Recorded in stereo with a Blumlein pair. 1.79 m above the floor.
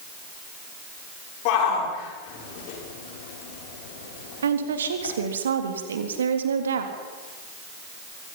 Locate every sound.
1.4 s a shout: 45° left, 6.5 m; by 5.2 s 65° left, 6.5 m
4.4 s a woman speaking: 65° right, 3.5 m